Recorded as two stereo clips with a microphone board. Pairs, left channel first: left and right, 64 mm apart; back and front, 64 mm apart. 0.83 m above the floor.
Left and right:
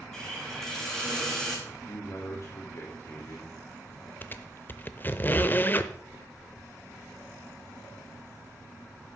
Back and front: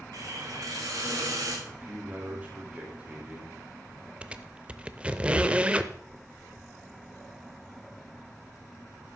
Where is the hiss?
10° left, 5 m.